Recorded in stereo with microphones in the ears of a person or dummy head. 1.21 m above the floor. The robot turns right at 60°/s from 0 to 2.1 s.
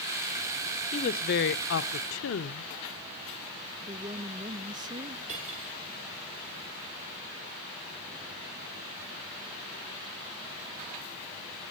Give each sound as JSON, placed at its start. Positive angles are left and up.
{"t": 0.9, "sound": "a woman speaking", "azimuth_deg": 40, "distance_m": 1.2}
{"t": 3.8, "sound": "a woman speaking", "side_deg": -25, "distance_m": 1.1}
{"t": 5.3, "sound": "cutlery clinking", "side_deg": -40, "distance_m": 10.0}